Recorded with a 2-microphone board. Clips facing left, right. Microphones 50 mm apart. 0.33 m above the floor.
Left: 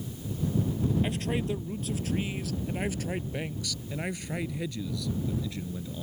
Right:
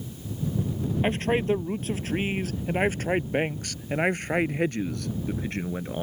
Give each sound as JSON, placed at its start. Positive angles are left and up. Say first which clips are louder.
{"t": 1.0, "sound": "a man speaking", "louder": "right 6 dB", "side_deg": -40}